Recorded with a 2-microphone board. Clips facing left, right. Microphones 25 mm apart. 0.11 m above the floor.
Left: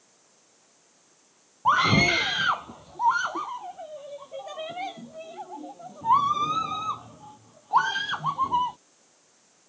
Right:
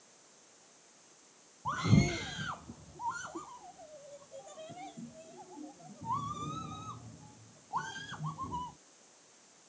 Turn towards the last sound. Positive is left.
turn(degrees=60)  # may be behind; listen again after turning